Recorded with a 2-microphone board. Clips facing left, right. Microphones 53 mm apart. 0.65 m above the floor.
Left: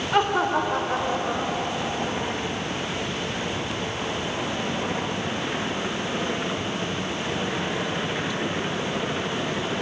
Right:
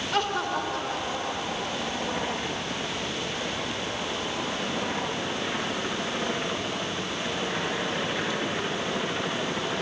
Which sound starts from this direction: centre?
Laughter, at 0.1 s.